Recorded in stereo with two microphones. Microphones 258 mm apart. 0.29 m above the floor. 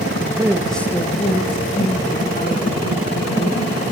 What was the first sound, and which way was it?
A man speaking, 20° right (ahead or behind).